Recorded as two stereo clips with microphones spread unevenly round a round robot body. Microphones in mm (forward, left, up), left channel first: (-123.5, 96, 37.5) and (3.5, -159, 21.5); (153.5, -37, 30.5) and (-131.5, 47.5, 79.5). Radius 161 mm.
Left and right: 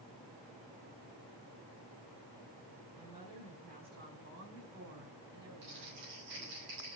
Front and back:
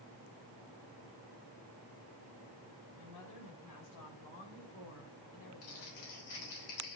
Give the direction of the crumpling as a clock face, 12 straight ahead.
12 o'clock.